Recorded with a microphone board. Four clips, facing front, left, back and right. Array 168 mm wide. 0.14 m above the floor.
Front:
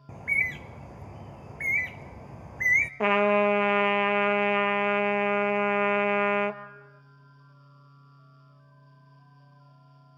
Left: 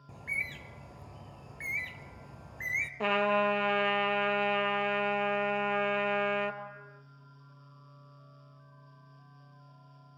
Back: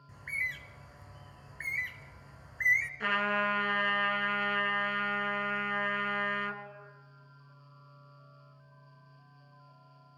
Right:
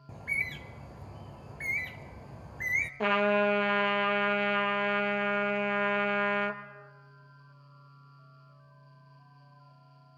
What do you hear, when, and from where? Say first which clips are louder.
0.1 s a bird: right 3 dB, front 7 dB; 15° right, 0.7 m
3.0 s a trumpet: right 2 dB, front 11 dB; 10° right, 1.1 m